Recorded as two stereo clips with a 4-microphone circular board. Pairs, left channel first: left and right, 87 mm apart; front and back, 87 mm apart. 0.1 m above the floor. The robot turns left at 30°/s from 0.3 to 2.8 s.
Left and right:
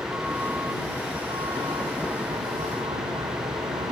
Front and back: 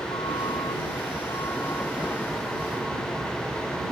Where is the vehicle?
20° right; by 3.9 s 90° right.